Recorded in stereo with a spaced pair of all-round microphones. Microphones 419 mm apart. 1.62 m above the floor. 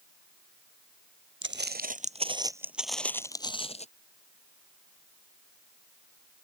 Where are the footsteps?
25° right (ahead or behind); by 3.9 s 15° left (ahead or behind).